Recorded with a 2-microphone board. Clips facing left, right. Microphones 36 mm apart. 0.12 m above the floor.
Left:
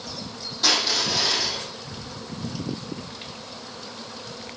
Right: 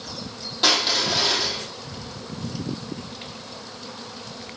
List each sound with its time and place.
0.6 s crushing: 50° right (ahead or behind), 4 m